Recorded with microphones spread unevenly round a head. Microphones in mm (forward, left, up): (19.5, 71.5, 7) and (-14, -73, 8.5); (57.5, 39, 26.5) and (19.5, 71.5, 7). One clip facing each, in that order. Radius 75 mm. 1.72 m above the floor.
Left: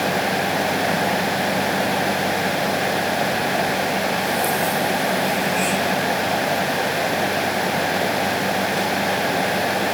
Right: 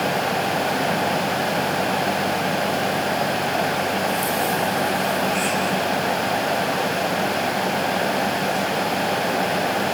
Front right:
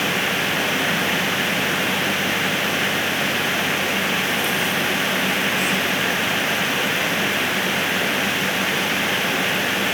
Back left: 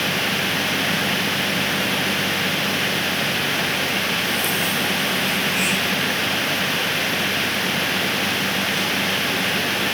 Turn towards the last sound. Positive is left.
No sound to turn to.